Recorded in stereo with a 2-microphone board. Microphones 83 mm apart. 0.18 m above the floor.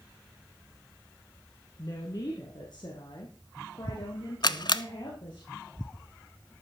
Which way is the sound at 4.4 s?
60° left (ahead or behind).